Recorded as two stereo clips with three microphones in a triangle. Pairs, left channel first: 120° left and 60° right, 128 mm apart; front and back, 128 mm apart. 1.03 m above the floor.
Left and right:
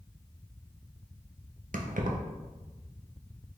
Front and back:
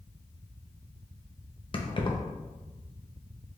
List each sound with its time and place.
1.7 s keys jangling: 50° right, 0.5 m